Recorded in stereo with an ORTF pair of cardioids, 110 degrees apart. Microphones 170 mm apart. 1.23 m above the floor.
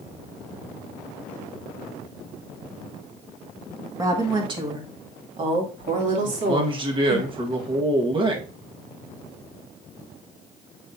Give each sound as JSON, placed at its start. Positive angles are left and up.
{"t": 4.0, "sound": "a woman speaking", "azimuth_deg": -20, "distance_m": 1.9}
{"t": 6.2, "sound": "a man speaking", "azimuth_deg": -30, "distance_m": 1.6}